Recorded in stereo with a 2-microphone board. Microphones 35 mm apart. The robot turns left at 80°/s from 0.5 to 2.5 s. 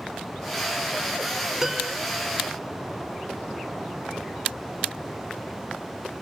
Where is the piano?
15° right (ahead or behind), 0.8 m; by 2.0 s centre (ahead or behind), 0.8 m.